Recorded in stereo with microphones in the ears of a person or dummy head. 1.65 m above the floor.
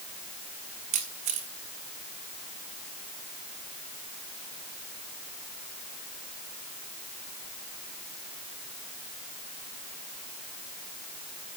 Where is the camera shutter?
35° right (ahead or behind), 1.7 m.